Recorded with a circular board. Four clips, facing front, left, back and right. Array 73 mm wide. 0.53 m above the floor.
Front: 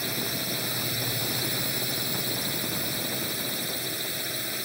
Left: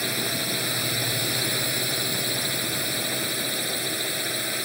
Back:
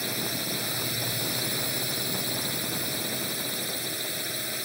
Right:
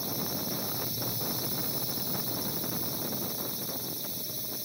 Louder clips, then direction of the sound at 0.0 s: Left 7 dB, even; 85° left.